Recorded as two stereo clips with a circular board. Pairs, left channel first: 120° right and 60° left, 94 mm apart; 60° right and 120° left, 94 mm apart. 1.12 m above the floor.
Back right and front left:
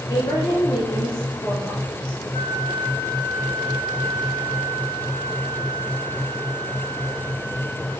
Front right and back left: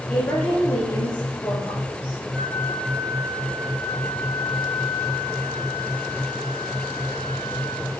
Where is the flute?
145° right, 1.7 m.